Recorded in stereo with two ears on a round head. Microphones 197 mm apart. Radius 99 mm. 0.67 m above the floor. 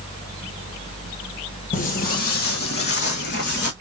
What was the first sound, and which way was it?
Footsteps, 35° left (ahead or behind).